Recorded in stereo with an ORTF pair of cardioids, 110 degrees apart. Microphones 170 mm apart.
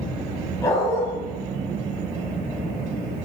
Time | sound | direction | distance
0.6 | a dog barking | 20° left | 3 m